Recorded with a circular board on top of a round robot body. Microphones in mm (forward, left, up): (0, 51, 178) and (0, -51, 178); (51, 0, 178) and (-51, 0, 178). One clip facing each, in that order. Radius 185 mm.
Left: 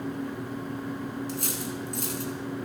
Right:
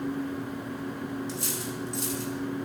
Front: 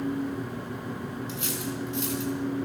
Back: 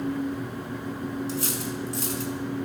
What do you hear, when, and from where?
1.3 s cutlery clinking: 130° left, 4 m